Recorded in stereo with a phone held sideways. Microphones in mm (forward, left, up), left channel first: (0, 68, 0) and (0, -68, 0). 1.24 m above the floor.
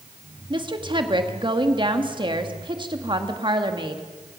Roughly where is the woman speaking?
Right.